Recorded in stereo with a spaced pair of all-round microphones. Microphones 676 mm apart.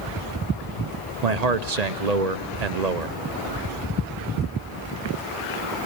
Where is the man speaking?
80° right, 0.7 m.